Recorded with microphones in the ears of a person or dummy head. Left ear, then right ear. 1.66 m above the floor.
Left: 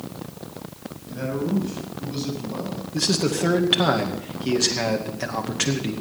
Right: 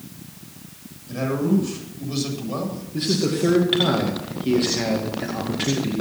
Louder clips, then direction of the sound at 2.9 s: Even; 40° left (ahead or behind).